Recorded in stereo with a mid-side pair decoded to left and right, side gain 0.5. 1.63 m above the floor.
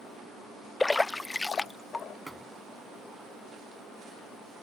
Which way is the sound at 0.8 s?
15° left.